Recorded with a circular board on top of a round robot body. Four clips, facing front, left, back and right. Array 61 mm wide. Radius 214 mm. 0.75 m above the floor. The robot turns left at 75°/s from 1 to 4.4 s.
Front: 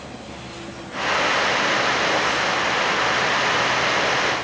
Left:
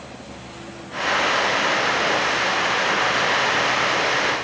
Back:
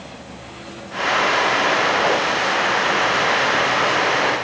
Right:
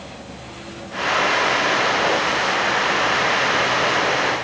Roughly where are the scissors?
No scissors in this recording.